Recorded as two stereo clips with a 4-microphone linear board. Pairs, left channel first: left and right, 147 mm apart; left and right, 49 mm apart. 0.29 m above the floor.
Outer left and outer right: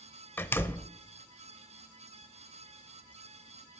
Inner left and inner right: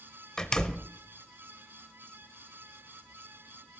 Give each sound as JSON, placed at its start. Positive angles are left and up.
{"t": 0.4, "sound": "a door slam", "side_deg": 15, "distance_m": 0.8}